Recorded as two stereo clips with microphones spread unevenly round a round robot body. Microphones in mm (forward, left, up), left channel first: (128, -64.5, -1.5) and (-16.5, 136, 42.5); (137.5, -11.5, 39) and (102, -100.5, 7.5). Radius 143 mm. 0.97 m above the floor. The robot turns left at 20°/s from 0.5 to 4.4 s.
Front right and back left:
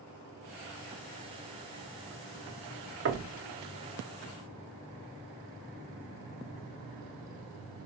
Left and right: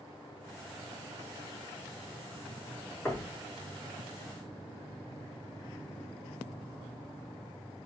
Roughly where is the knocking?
Behind.